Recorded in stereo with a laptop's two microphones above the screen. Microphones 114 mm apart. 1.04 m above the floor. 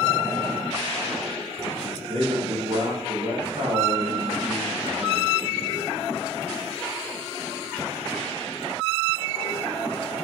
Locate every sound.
2.1 s a man speaking: 45° right (ahead or behind), 0.7 m